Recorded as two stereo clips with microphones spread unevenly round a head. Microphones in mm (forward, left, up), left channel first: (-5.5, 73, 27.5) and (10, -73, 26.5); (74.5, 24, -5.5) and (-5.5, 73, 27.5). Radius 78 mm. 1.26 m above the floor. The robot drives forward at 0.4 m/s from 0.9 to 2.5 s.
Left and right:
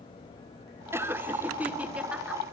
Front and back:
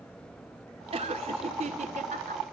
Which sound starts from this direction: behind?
Laughter, at 0.9 s.